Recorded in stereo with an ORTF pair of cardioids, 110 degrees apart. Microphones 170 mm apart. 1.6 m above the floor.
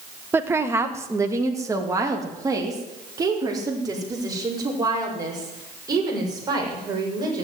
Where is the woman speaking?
15° right, 1.4 m; by 7.4 s 25° right, 7.5 m.